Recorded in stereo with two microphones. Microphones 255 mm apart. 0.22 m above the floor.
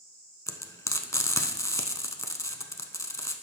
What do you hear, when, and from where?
0.5 s frying: 10° left (ahead or behind), 0.6 m